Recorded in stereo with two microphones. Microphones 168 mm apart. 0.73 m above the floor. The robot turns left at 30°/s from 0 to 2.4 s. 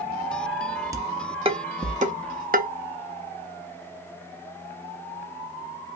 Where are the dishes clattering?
20° right (ahead or behind), 0.6 m; by 2.7 s 60° right (ahead or behind), 0.6 m.